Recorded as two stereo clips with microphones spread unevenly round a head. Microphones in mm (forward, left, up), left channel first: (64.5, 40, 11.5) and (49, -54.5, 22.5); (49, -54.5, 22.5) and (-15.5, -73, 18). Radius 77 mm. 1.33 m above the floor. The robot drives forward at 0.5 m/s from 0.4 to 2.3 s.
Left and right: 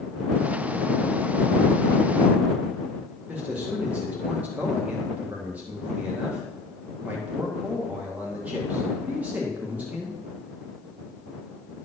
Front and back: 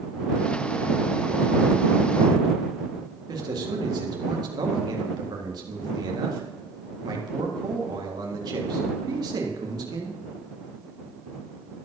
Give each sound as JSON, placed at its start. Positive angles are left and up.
{"t": 3.3, "sound": "a man speaking", "azimuth_deg": 180, "distance_m": 1.7}